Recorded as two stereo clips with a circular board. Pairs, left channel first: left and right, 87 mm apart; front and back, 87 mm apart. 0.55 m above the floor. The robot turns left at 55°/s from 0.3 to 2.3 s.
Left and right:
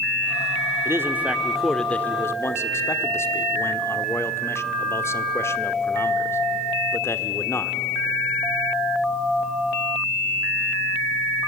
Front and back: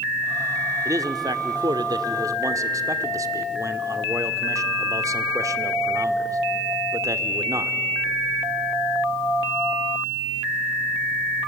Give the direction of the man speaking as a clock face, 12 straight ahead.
5 o'clock.